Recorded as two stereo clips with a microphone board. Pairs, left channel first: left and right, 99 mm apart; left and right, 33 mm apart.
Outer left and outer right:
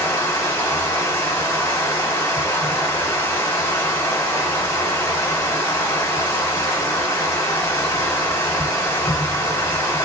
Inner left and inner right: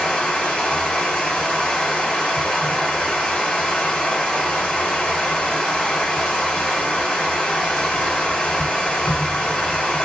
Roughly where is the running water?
Left.